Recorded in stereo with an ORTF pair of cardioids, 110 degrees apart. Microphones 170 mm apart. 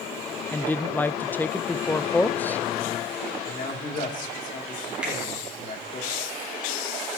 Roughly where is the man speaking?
Ahead left.